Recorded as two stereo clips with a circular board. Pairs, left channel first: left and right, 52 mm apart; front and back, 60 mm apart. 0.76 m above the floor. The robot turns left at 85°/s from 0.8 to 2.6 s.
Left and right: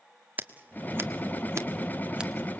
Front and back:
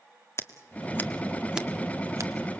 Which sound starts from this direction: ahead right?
Scissors, at 0.4 s.